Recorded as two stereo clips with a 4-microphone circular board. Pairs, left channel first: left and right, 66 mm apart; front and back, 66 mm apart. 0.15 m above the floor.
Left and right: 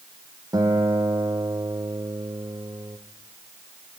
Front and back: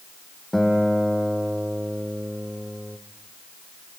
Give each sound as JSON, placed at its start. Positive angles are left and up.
{"t": 0.5, "sound": "a guitar", "azimuth_deg": -85, "distance_m": 3.5}